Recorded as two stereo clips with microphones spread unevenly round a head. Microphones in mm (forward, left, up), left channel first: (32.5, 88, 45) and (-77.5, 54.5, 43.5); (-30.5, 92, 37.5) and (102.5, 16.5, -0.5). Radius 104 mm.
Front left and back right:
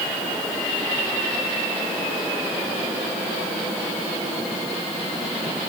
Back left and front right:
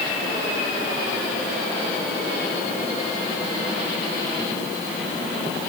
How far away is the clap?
I don't hear a clap.